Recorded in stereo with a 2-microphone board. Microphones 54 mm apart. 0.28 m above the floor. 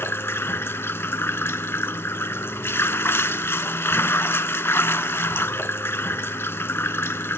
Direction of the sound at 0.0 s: 50° left (ahead or behind).